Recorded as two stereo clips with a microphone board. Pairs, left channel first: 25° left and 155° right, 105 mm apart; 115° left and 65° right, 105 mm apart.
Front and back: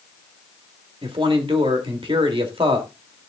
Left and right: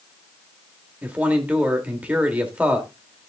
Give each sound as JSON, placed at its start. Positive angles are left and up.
{"t": 1.0, "sound": "a man speaking", "azimuth_deg": -140, "distance_m": 2.0}